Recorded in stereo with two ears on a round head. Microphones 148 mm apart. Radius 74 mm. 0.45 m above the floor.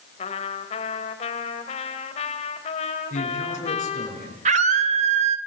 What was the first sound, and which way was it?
A trumpet, 40° left (ahead or behind).